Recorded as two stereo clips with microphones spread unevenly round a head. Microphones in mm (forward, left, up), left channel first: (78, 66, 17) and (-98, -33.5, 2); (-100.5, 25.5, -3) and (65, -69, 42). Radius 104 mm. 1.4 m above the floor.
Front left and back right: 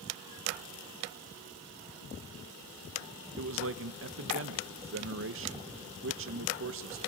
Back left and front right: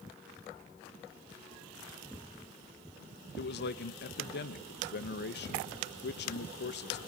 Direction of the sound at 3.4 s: 175° right.